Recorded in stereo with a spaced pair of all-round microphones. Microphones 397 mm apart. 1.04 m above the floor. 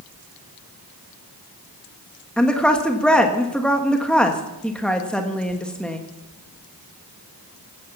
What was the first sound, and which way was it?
A woman speaking, centre (ahead or behind).